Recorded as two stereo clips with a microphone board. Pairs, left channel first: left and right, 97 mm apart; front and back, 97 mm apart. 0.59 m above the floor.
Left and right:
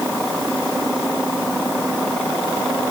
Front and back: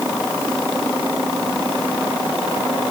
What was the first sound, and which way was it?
Only background noise.